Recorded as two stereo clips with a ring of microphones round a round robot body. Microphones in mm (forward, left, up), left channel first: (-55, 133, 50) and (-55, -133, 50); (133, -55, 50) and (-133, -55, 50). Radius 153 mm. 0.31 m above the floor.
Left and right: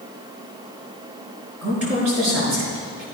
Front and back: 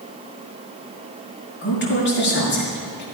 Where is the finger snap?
No finger snap in this recording.